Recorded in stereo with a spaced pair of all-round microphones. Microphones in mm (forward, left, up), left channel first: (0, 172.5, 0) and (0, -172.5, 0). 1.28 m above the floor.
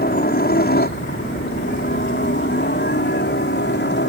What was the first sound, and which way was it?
A helicopter, 25° left (ahead or behind).